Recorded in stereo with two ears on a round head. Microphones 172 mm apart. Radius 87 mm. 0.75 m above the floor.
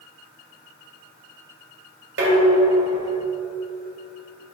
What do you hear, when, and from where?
2.2 s dishes clattering: 65° right (ahead or behind), 2.5 m